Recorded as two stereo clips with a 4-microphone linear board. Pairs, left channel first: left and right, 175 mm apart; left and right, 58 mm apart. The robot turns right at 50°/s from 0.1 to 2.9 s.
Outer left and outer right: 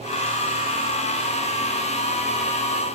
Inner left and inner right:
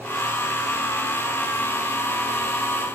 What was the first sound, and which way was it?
Only background noise.